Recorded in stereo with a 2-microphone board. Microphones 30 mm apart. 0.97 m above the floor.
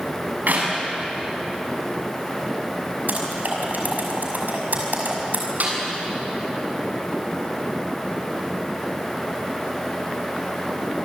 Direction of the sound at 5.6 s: 60° right (ahead or behind).